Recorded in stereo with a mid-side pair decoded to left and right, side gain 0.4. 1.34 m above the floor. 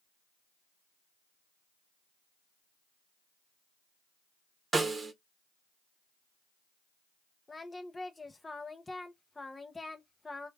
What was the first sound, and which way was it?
A snare drum, 35° right.